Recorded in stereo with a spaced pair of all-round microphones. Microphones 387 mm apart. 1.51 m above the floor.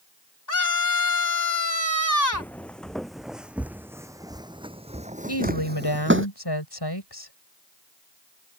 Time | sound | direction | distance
0.5 | a scream | 50° left (ahead or behind) | ?
2.3 | footsteps | 5° left (ahead or behind) | ?
5.3 | a woman speaking | 85° left | ?